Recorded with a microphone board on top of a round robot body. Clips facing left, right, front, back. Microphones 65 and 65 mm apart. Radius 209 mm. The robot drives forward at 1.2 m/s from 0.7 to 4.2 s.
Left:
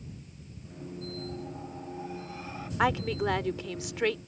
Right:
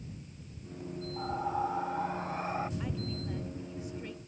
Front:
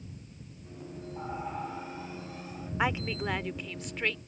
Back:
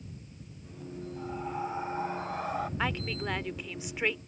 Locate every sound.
1.2 s breathing: 60° right; by 2.7 s 150° right
2.8 s a woman speaking: 75° left; by 4.3 s 105° left